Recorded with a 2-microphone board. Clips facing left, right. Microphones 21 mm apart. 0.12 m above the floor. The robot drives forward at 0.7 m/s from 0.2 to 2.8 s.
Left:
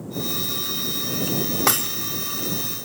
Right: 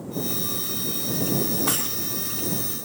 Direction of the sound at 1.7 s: 60° left (ahead or behind).